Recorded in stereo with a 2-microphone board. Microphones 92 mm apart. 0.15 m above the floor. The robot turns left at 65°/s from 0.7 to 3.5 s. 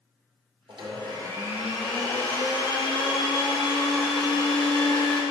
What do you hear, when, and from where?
0.7 s a blender: 105° right, 3 m; by 5.2 s 75° left, 3 m